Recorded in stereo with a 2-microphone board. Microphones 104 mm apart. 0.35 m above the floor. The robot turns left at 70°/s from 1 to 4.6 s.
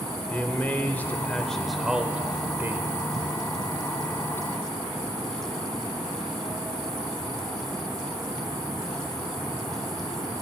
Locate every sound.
0.3 s a man speaking: 15° left (ahead or behind), 0.8 m; by 2.9 s 20° right (ahead or behind), 0.8 m